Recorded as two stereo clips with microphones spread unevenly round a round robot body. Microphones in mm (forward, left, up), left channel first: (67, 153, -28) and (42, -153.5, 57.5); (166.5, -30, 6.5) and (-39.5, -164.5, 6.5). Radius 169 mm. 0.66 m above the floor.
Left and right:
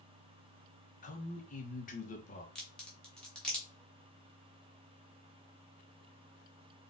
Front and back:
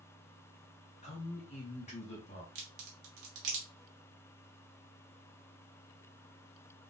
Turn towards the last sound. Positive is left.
turn(degrees=165)